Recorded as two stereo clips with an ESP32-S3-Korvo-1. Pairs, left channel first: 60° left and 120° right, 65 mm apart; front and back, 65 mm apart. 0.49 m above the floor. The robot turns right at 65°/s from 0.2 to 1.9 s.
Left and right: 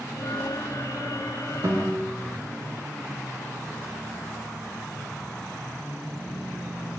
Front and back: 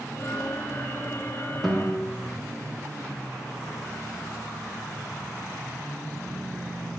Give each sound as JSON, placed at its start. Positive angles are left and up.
{"t": 1.6, "sound": "a guitar", "azimuth_deg": -90, "distance_m": 0.5}